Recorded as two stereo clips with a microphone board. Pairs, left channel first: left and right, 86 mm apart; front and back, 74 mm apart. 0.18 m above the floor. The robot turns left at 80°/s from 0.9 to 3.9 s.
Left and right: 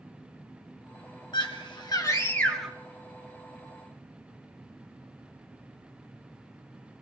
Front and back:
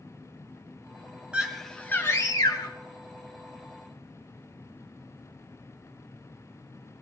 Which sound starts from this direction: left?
A scream, at 1.3 s.